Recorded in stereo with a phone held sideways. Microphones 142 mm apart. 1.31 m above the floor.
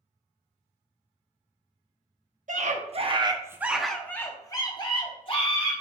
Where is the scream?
60° right (ahead or behind), 0.8 m; by 5.7 s 45° left (ahead or behind), 1.5 m.